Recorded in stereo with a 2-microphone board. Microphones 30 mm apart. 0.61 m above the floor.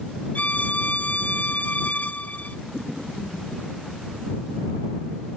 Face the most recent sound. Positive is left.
turn(degrees=60)  # may be behind; listen again after turning